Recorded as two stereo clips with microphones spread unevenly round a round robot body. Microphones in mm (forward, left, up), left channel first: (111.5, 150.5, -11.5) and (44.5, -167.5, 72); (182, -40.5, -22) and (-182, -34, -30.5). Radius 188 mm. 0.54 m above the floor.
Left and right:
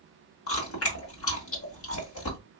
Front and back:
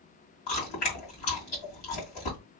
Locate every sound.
0.5 s chewing: 30° left, 2.5 m